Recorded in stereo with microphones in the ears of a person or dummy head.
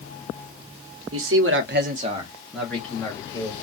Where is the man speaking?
75° right (ahead or behind), 0.9 m; by 3.5 s 20° left (ahead or behind), 1.4 m.